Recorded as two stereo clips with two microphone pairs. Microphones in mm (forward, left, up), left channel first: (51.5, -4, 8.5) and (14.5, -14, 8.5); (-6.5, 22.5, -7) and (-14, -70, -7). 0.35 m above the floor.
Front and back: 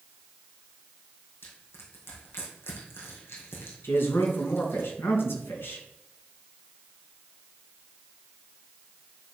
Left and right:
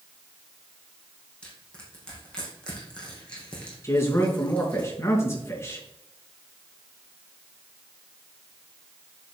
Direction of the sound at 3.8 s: 25° left.